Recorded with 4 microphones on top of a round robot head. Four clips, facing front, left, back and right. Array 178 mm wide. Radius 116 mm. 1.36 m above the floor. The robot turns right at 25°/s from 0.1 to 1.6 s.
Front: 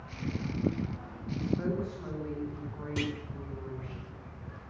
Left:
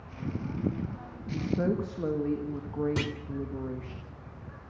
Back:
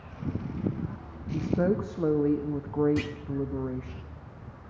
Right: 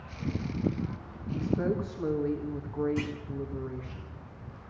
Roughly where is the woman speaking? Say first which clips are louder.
Even, back 6 dB; behind left.